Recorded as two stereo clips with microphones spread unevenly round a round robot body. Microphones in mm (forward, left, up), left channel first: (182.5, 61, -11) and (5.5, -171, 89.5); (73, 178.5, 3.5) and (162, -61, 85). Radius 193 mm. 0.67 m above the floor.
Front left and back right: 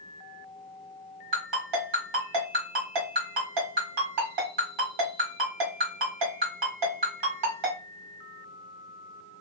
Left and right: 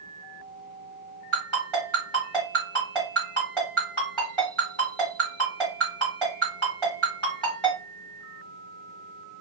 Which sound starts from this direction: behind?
A ringtone, at 1.3 s.